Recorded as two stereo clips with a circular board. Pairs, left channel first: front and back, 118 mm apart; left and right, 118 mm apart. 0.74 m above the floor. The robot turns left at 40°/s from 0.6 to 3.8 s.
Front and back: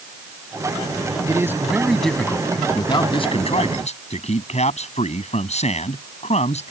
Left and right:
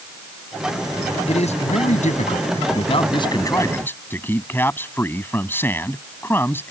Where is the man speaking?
120° left; by 6.7 s 15° left.